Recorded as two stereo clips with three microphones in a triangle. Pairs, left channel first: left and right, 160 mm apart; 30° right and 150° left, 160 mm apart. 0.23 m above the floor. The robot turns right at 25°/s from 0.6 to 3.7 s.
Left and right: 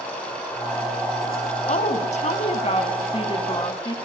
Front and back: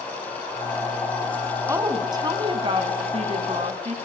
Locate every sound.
1.7 s a woman speaking: 85° left, 2 m; by 4.0 s 135° left, 2 m